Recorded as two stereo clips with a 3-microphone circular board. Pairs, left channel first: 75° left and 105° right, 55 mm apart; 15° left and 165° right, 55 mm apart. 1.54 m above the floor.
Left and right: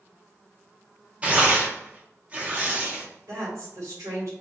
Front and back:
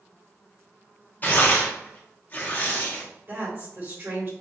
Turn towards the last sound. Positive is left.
turn(degrees=-120)